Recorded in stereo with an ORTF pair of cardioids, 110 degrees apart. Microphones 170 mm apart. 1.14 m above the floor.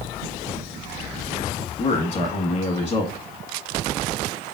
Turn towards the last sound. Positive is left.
turn(degrees=45)